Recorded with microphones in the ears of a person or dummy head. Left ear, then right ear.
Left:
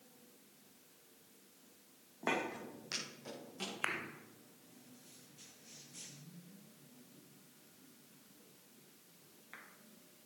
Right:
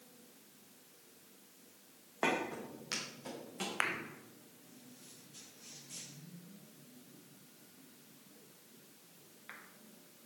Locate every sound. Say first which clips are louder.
2.5 s footsteps: right 2 dB; 5° right (ahead or behind), 3.5 m; by 3.8 s 10° right (ahead or behind), 5 m